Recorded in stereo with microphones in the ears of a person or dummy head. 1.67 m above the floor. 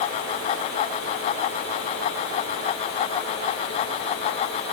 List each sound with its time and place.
Only background noise.